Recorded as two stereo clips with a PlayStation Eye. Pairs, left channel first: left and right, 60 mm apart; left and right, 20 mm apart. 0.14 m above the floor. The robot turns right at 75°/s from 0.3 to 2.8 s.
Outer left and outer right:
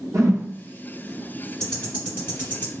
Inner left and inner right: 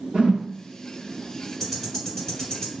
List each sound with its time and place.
0.1 s a whoosh: 65° right (ahead or behind), 1.0 m; by 0.5 s 55° right (ahead or behind), 1.0 m
1.6 s ticking: 10° left (ahead or behind), 1.8 m; by 2.7 s 40° left (ahead or behind), 1.8 m